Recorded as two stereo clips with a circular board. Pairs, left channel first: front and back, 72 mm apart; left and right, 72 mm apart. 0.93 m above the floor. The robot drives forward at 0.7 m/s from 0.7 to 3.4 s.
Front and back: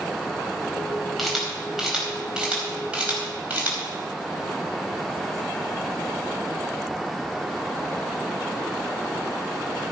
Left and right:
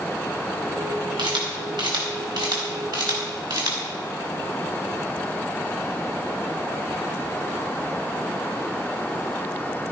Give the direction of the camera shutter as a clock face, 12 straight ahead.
3 o'clock.